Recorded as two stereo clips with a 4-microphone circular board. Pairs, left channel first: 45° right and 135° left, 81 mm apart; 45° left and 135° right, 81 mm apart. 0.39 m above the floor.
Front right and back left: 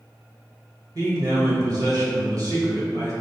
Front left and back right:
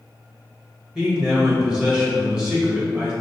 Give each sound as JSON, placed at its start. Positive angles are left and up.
{"t": 0.9, "sound": "a man speaking", "azimuth_deg": 150, "distance_m": 1.3}